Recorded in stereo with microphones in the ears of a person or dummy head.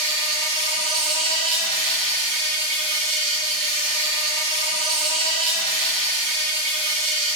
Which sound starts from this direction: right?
An insect, at 0.0 s.